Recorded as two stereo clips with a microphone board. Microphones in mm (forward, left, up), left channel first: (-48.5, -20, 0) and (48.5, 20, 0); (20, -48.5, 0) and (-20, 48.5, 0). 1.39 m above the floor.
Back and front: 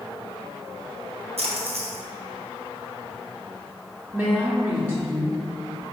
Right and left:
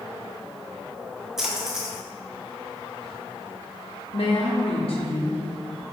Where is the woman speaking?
45° right, 0.7 m.